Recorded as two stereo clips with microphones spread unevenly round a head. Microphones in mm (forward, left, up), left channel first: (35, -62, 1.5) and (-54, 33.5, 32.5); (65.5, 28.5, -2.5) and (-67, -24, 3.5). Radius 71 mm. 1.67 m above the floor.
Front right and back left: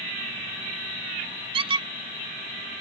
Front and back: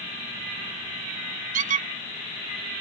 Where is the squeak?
175° left.